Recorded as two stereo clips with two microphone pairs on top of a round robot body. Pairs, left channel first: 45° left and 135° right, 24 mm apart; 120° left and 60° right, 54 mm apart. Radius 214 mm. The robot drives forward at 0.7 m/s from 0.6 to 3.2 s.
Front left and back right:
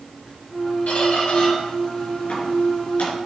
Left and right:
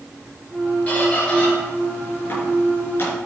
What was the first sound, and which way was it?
A squeak, 55° left.